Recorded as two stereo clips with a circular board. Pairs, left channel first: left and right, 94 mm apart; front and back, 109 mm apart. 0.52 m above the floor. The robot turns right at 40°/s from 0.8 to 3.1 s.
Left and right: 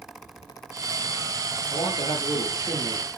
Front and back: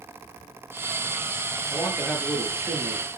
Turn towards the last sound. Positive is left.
turn(degrees=135)